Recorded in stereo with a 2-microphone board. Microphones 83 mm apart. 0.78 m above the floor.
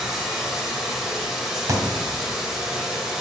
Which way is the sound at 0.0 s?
5° right (ahead or behind).